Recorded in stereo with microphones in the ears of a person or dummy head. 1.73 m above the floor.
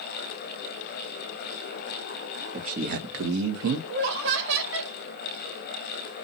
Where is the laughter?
60° right (ahead or behind), 1.1 m.